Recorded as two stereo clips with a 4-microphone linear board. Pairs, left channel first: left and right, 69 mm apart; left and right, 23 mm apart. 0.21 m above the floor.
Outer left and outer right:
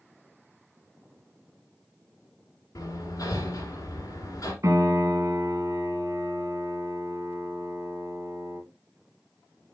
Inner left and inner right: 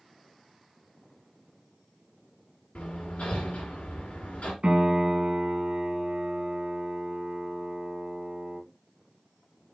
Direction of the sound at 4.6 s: 50° right (ahead or behind).